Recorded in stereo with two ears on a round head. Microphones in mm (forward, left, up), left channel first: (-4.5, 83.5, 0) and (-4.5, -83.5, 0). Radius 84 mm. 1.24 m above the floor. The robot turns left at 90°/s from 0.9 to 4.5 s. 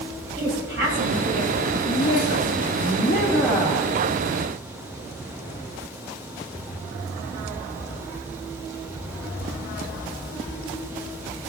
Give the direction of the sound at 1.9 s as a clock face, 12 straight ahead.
7 o'clock.